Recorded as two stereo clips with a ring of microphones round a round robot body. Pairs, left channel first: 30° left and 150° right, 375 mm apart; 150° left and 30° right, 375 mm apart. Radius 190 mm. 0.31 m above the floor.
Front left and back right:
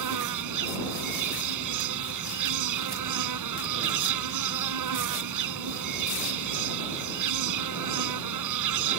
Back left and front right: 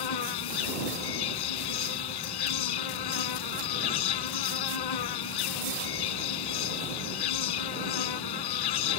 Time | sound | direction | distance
0.0 | an insect | 170° left | ?